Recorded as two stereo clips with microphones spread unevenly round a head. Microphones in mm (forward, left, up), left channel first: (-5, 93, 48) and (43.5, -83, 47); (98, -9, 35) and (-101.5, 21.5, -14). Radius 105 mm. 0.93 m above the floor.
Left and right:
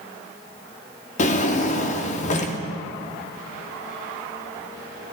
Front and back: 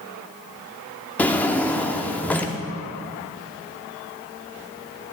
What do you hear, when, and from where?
1.2 s a drawer: 60° left, 0.6 m